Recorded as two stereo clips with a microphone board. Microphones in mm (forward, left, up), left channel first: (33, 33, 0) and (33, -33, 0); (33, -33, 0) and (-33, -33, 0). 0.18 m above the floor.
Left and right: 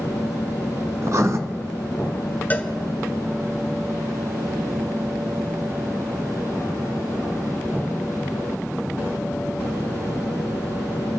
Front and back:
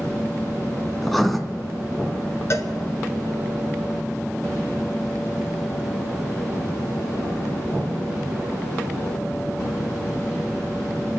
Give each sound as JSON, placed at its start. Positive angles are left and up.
{"t": 1.0, "sound": "writing", "azimuth_deg": -90, "distance_m": 1.0}
{"t": 2.5, "sound": "a cowbell", "azimuth_deg": 30, "distance_m": 1.2}